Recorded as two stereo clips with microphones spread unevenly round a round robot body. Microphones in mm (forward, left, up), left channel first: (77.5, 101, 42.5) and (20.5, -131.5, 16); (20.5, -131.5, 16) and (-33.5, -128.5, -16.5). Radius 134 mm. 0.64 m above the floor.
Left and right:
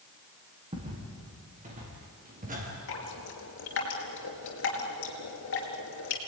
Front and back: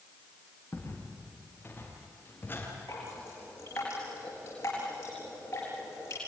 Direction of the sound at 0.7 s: 40° right.